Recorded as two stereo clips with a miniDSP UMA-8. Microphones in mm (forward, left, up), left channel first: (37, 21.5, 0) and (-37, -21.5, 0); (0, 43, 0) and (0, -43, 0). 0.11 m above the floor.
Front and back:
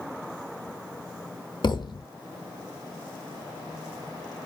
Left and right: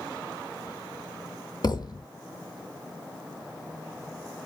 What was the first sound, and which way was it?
A thud, 55° left.